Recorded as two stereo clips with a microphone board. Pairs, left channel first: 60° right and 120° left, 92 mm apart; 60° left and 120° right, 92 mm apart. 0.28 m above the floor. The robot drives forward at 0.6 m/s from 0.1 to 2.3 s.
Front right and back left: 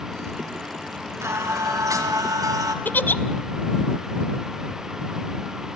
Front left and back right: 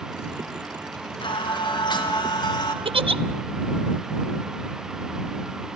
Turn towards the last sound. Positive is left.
turn(degrees=-130)